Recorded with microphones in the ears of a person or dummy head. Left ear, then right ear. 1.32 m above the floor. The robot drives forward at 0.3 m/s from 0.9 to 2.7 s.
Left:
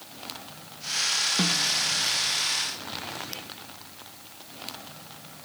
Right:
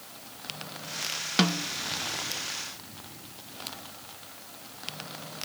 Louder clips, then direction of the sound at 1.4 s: Left 2 dB; 50° right (ahead or behind).